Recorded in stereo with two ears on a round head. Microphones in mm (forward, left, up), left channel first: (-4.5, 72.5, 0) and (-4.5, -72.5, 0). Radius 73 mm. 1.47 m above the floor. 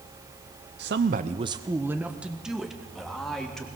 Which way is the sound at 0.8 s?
70° right (ahead or behind).